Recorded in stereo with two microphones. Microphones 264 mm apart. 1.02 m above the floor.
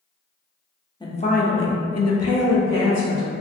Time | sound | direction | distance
1.0 | a woman speaking | 15° left (ahead or behind) | 0.7 m